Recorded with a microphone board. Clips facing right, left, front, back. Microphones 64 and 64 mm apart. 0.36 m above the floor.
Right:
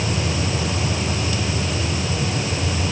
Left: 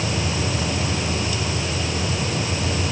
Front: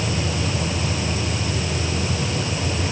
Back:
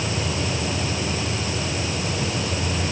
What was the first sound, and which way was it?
Only background noise.